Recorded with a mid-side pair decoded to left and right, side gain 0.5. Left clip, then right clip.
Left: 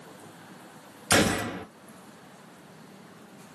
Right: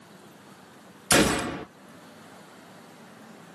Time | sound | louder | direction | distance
1.1 | a gunshot | right 2 dB | 15° right | 2.5 m